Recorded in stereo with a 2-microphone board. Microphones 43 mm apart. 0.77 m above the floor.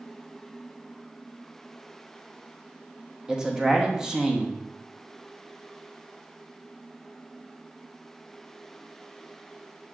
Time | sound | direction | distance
3.3 | a man speaking | 15° right (ahead or behind) | 0.7 m